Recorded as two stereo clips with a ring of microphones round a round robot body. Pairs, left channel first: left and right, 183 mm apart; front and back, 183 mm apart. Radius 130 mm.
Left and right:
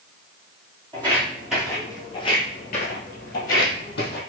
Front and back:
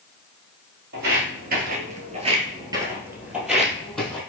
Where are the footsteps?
160° right, 1.1 m; by 4.2 s 85° left, 1.6 m.